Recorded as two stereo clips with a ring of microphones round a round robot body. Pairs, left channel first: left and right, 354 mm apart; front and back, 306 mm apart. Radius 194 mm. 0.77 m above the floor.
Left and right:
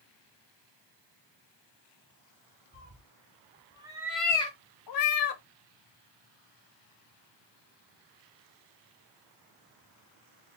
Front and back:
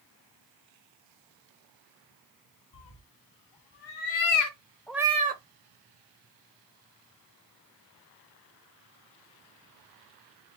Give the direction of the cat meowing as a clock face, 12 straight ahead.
1 o'clock.